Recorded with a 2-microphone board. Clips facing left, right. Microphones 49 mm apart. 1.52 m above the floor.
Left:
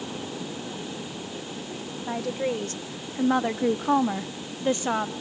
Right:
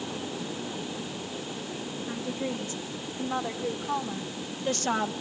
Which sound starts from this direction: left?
A woman speaking, at 2.1 s.